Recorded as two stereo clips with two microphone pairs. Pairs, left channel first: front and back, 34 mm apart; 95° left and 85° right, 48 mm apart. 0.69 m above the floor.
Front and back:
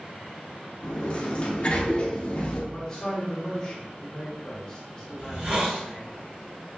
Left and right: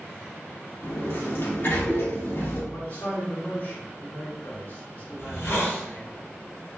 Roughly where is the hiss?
Behind left.